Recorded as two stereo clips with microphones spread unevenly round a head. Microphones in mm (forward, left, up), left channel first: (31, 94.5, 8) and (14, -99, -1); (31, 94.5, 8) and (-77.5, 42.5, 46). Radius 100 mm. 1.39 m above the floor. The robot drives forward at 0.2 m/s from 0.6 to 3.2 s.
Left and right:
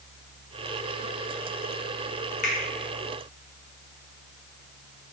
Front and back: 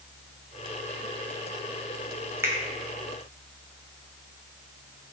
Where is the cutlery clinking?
I don't hear cutlery clinking.